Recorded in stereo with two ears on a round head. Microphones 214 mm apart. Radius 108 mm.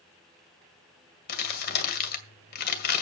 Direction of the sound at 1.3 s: 40° left (ahead or behind).